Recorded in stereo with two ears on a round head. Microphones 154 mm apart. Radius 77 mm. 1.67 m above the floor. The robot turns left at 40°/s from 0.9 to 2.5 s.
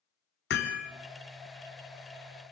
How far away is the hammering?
About 3.5 m.